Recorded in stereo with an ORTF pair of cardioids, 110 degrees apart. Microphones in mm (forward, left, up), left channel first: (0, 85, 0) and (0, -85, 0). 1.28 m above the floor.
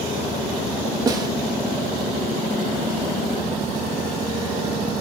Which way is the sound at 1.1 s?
25° right.